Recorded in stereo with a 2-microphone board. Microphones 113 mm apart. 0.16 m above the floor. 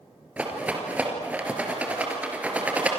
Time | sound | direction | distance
0.4 | a rattle | 10° right (ahead or behind) | 3 m